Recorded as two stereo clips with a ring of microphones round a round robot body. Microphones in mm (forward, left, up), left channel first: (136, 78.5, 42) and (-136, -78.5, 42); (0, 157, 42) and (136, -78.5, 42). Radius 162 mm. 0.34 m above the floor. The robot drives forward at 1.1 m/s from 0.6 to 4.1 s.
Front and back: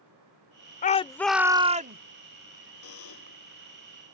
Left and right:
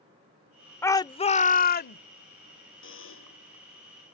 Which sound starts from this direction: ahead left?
A shout, at 0.8 s.